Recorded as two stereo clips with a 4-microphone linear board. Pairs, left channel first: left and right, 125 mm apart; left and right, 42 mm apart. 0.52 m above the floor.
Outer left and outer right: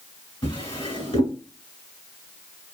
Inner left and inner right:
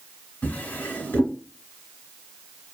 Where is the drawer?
45° left (ahead or behind), 0.9 m.